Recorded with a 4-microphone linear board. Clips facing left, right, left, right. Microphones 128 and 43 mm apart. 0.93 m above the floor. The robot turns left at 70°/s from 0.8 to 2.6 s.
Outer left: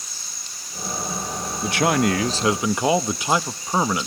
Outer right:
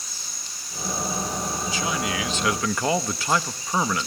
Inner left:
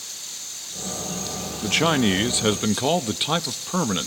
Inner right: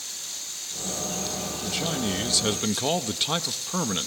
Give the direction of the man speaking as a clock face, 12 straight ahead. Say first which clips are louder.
Outer left 11 dB, inner left 10 dB; 9 o'clock.